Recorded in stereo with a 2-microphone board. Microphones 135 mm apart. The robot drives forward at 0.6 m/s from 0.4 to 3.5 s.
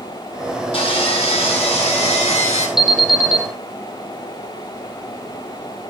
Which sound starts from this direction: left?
Sawing, at 0.7 s.